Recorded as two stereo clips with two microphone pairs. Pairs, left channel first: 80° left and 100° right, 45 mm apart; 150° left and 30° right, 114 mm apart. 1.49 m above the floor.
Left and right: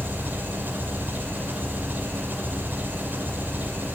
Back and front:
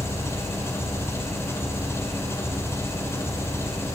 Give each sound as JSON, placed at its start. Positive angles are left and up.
{"t": 0.0, "sound": "an engine running", "azimuth_deg": -145, "distance_m": 5.5}